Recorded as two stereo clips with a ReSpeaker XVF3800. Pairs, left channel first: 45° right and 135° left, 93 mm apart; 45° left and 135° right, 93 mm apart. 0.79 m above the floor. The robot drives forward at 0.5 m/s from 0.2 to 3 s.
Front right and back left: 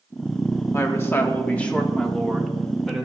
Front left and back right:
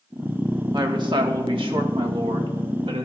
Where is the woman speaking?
100° right, 1.3 m; by 3.0 s 140° right, 1.9 m.